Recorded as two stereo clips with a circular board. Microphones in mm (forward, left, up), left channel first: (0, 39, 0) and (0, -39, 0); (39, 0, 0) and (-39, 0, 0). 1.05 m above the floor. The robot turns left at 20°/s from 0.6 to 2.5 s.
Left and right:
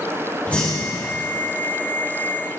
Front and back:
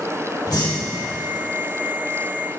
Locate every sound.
0.5 s breathing: 20° left, 4 m; by 1.1 s 10° left, 4 m